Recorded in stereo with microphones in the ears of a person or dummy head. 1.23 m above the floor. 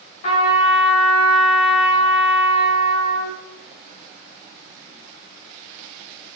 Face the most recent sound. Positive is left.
turn(degrees=50)  # may be behind; listen again after turning